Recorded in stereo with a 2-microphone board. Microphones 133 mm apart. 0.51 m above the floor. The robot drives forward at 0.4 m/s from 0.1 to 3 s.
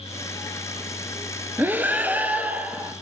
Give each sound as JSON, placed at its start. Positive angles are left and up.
{"t": 1.6, "sound": "breathing", "side_deg": -15, "distance_m": 1.2}